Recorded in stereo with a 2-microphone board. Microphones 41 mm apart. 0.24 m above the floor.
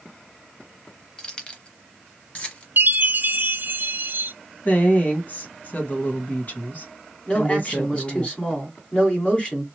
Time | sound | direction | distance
1.2 | keys jangling | 15° left (ahead or behind) | 0.9 m
2.8 | a chime | 60° right (ahead or behind) | 0.6 m
4.7 | a woman speaking | 40° left (ahead or behind) | 1.4 m
7.3 | a man speaking | 30° left (ahead or behind) | 1.7 m